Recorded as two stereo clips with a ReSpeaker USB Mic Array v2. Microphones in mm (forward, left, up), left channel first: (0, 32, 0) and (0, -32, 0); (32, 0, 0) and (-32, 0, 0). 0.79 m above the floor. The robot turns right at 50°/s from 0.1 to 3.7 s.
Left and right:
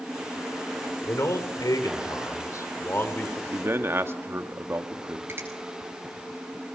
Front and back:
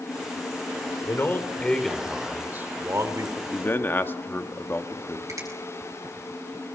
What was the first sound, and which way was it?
A man speaking, 45° left.